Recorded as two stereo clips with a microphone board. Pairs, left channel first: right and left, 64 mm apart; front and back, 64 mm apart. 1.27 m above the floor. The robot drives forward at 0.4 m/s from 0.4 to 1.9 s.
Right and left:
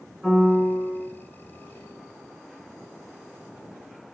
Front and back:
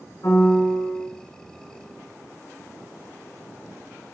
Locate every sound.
0.2 s a piano: straight ahead, 3.5 m